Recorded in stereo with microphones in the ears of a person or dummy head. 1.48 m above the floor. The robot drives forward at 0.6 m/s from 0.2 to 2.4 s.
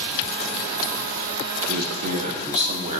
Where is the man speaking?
40° right (ahead or behind), 0.7 m; by 3.0 s 25° right (ahead or behind), 1.0 m.